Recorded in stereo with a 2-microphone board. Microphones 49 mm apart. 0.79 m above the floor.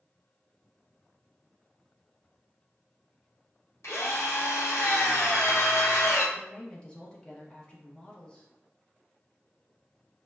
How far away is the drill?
About 0.9 m.